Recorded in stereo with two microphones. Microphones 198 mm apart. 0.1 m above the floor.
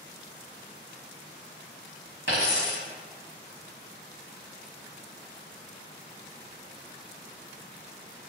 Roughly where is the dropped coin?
Right.